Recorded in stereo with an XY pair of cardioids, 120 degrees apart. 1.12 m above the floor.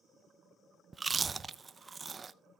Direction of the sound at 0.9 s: 25° right.